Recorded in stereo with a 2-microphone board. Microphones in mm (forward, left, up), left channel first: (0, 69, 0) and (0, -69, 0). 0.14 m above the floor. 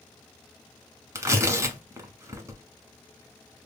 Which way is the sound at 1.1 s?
20° right (ahead or behind).